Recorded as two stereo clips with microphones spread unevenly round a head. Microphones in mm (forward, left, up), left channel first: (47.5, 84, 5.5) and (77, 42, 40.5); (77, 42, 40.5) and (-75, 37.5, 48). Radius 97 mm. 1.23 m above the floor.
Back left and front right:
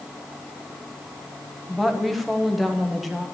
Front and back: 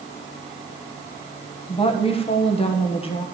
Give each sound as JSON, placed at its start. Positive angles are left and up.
{"t": 1.7, "sound": "a woman speaking", "azimuth_deg": 50, "distance_m": 1.2}